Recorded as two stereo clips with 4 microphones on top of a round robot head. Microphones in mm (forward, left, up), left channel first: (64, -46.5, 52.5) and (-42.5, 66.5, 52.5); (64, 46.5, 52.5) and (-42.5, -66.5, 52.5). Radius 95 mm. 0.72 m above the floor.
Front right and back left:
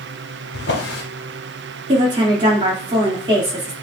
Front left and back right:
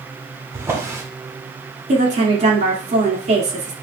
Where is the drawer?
60° right, 1.3 m.